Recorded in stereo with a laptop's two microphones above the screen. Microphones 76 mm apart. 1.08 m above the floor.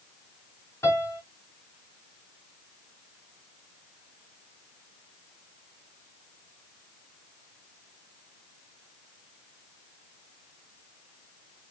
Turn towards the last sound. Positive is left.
turn(degrees=40)  # may be behind; listen again after turning